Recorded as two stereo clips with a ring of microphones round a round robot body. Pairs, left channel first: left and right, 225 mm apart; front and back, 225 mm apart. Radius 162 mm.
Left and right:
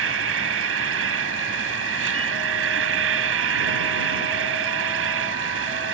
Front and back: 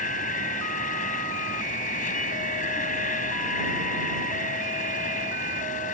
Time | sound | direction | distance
0.0 | an insect | 70° right | ?